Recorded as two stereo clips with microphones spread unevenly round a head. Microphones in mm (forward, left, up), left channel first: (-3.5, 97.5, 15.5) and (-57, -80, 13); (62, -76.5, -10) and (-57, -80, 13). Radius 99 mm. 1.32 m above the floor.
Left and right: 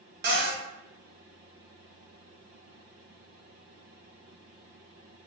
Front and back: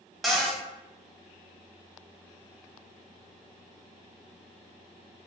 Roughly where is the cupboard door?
Right.